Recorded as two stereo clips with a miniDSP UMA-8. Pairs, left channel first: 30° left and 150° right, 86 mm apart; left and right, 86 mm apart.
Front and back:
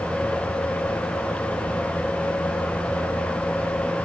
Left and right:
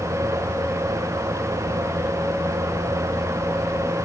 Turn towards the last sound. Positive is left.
No sound to turn to.